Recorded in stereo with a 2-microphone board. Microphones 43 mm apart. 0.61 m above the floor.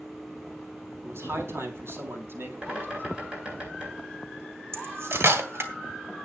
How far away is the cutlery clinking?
About 2.5 m.